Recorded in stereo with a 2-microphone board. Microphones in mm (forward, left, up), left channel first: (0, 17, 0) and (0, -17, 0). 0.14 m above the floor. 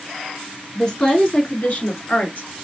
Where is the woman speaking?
20° left (ahead or behind), 1.5 m; by 2.5 s 55° left (ahead or behind), 2.5 m.